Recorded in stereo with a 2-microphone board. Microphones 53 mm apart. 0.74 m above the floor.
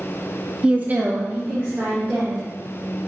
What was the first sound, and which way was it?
A woman speaking, 15° right (ahead or behind).